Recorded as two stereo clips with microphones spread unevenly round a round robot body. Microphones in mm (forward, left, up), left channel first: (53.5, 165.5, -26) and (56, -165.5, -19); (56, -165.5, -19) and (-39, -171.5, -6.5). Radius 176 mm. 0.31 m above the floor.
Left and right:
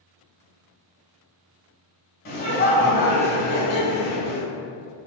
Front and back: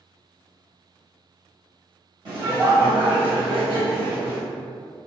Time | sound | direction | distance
2.2 | laughter | 140° left | 1.2 m